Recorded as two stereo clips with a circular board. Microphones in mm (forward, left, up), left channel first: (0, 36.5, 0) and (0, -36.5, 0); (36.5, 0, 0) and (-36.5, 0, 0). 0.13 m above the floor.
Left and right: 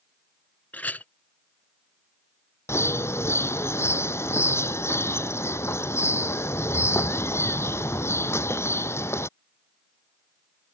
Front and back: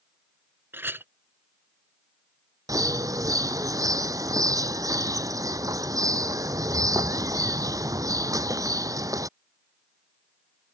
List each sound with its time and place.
0.7 s a clink: 140° left
2.7 s a bird: 140° left